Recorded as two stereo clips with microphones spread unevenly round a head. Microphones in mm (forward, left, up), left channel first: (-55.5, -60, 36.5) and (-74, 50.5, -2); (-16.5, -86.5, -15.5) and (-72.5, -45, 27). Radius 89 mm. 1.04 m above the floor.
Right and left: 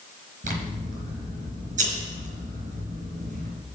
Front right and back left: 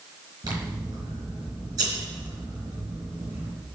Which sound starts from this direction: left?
Scissors, at 0.4 s.